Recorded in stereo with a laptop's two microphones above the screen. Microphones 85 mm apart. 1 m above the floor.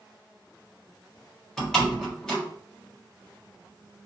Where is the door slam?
5° left (ahead or behind), 1.4 m.